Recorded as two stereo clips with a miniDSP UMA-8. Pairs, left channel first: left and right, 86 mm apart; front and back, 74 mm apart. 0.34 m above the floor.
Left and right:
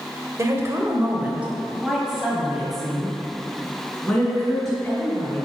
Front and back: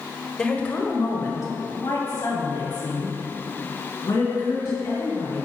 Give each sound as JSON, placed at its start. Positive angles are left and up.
{"t": 0.4, "sound": "a woman speaking", "azimuth_deg": -75, "distance_m": 1.1}